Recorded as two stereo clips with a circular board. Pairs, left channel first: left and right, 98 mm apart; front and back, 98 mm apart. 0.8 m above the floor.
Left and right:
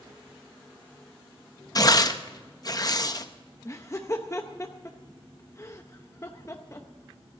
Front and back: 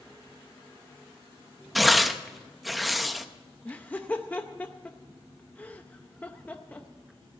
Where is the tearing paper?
90° left, 0.7 m.